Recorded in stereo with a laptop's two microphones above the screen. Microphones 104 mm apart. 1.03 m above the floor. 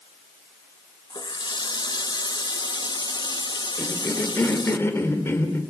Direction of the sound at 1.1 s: 45° left (ahead or behind).